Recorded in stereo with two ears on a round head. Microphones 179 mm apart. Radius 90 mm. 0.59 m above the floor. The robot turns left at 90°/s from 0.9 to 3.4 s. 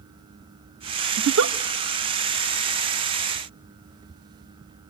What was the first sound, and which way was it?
A giggle, 60° right (ahead or behind).